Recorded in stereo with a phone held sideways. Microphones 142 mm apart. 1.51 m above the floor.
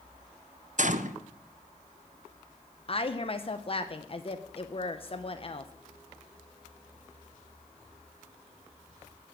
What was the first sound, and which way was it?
A gunshot, 60° right (ahead or behind).